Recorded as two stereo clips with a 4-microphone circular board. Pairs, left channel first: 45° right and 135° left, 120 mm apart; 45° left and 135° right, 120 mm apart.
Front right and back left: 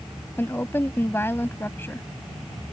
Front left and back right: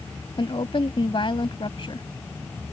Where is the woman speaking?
20° left.